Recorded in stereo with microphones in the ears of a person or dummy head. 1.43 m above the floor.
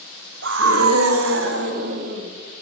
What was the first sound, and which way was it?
A scream, 60° right (ahead or behind).